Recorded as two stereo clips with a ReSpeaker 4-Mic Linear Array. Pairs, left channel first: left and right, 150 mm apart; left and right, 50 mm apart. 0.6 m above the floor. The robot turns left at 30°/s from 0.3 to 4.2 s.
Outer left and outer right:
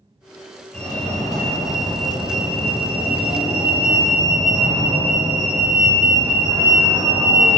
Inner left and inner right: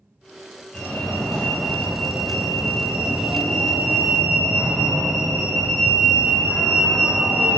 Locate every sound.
0.7 s a fire alarm: 10° left (ahead or behind), 1.5 m; by 7.6 s 20° right (ahead or behind), 1.5 m